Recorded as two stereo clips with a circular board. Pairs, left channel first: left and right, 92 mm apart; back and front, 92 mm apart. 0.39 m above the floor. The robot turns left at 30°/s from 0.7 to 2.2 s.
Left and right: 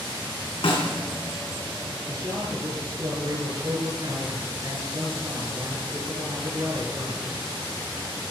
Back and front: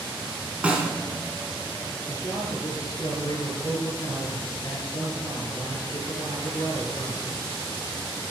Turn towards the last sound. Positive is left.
turn(degrees=-135)